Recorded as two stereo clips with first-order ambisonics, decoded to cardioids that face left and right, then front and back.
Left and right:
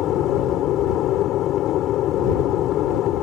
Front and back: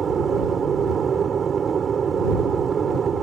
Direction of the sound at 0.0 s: 120° left.